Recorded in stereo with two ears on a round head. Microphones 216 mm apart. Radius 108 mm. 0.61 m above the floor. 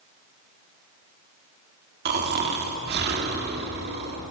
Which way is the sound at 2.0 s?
45° right (ahead or behind).